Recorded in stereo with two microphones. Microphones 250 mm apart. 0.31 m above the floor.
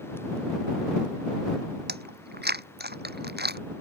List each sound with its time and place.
1.9 s chewing: 40° right (ahead or behind)